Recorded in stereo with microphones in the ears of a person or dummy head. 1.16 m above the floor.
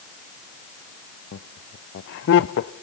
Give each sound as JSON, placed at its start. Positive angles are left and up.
{"t": 1.3, "sound": "laughter", "side_deg": 60, "distance_m": 0.5}